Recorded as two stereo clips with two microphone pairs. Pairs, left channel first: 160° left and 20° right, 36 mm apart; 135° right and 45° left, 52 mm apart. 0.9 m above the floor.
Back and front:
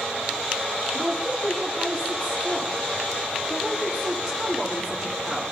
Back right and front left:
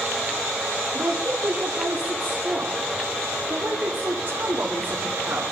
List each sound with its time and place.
0.9 s a woman speaking: 75° left, 2 m